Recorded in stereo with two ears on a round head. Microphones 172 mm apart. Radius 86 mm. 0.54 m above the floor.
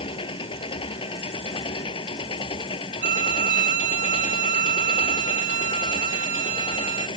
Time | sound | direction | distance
0.0 | an engine running | 30° left (ahead or behind) | ?
3.0 | a violin | 45° right (ahead or behind) | ?